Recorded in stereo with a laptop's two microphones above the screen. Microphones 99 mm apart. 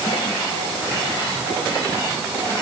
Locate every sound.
Only background noise.